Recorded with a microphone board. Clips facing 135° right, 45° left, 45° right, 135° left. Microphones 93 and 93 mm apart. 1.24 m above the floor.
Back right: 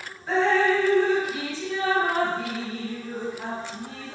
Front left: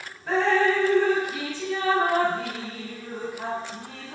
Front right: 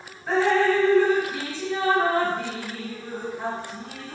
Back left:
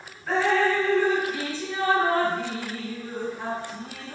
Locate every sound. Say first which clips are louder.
0.3 s dripping: even, front right 2 dB; 25° left, 1.5 m